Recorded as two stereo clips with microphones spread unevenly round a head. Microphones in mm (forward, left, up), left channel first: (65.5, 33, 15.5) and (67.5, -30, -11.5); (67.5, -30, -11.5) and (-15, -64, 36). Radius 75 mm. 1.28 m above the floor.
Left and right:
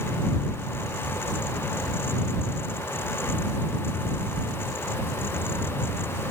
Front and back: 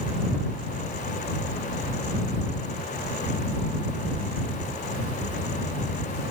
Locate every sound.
Only background noise.